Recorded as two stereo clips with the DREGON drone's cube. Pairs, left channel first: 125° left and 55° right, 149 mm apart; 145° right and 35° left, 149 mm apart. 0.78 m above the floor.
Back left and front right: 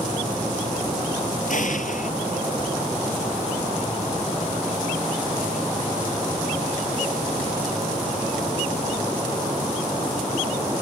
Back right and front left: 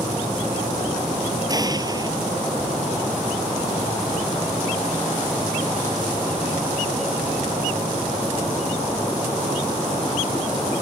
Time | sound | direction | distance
1.5 | an explosion | 95° left | ?